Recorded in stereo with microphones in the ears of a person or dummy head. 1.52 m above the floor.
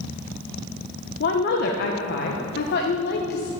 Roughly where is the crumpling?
I don't hear crumpling.